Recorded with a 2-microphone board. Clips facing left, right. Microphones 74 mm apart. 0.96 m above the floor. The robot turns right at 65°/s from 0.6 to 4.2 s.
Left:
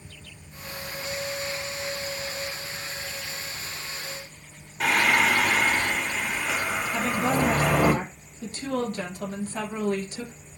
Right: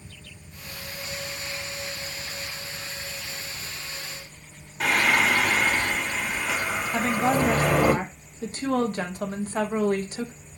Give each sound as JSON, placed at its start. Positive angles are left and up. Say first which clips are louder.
{"t": 4.8, "sound": "singing", "louder": "even", "side_deg": 5, "distance_m": 2.0}
{"t": 6.9, "sound": "a woman speaking", "louder": "right 3 dB", "side_deg": -45, "distance_m": 1.0}